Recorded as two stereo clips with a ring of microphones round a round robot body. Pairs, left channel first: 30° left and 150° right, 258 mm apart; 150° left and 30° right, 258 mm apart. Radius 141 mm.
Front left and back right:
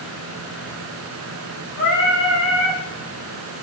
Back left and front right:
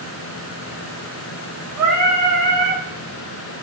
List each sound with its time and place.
1.8 s singing: 5° right, 3.5 m